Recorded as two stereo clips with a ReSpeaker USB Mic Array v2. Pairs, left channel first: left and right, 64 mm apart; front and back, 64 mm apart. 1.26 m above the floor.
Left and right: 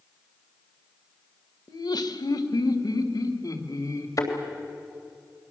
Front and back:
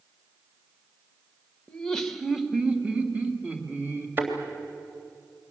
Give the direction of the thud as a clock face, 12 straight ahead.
8 o'clock.